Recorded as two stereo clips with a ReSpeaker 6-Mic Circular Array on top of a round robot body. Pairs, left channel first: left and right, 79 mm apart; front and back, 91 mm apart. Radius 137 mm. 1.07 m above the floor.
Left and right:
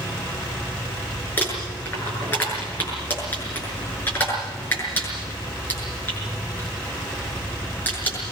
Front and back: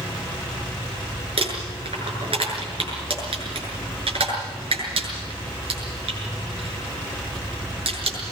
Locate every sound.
1.4 s crumpling: 160° left, 7 m